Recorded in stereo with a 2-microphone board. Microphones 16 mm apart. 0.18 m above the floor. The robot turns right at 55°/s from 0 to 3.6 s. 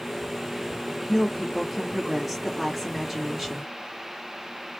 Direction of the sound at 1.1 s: 5° left (ahead or behind).